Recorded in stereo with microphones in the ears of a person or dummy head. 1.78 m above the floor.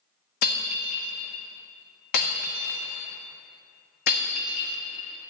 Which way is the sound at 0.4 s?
45° left (ahead or behind).